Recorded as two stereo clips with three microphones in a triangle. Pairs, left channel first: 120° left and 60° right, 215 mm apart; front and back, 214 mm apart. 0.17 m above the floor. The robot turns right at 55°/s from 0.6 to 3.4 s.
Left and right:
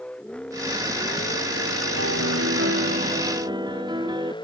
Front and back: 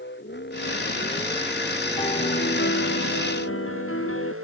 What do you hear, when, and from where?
0.0 s a vehicle: 35° left; by 4.4 s 170° right
2.0 s a piano: 70° right; by 4.3 s 10° left